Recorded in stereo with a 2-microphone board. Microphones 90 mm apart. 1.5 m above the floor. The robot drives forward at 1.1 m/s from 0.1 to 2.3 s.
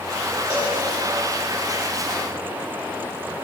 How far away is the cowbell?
About 2.5 m.